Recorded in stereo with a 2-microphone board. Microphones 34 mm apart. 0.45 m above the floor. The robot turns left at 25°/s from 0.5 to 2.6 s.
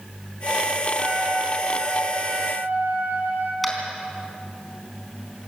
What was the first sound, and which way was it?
A trumpet, 45° right.